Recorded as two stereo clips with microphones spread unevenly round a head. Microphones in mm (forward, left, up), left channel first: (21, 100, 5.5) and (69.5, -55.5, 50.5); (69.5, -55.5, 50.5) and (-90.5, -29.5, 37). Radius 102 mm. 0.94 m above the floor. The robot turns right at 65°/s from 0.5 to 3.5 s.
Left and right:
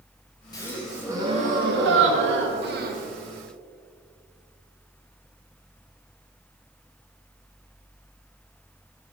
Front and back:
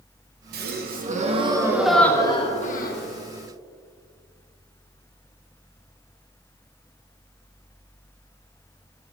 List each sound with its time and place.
0.5 s a gasp: 170° left, 1.1 m; by 3.1 s 25° right, 1.1 m